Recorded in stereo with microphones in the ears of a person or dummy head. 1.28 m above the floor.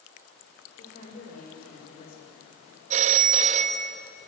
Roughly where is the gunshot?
I don't hear a gunshot.